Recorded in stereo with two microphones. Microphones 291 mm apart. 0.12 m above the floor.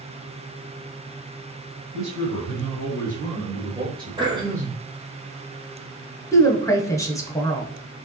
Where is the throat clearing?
15° right (ahead or behind), 1.3 m.